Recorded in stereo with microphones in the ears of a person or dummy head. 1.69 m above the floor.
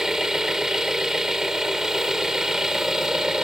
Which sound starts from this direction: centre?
An engine running, at 0.0 s.